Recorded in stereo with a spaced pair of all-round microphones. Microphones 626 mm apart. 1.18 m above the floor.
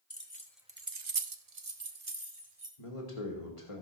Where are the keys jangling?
20° left (ahead or behind), 1.3 m; by 2.7 s 60° right (ahead or behind), 2.5 m.